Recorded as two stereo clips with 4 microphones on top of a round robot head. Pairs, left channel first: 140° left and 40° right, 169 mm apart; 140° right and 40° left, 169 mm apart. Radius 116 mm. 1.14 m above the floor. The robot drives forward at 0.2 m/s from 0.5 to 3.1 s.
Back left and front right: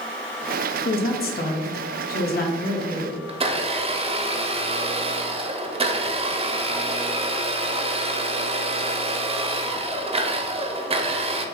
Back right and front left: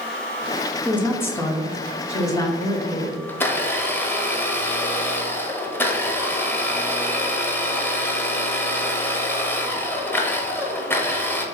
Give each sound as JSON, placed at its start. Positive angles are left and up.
{"t": 0.8, "sound": "a woman speaking", "azimuth_deg": 140, "distance_m": 1.0}
{"t": 3.3, "sound": "a blender", "azimuth_deg": -70, "distance_m": 0.7}